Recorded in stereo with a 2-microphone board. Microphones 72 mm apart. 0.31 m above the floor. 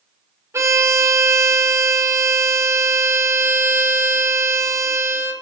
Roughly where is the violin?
Right.